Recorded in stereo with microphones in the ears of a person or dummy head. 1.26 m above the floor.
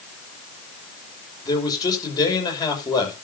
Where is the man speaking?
25° left (ahead or behind), 5.5 m.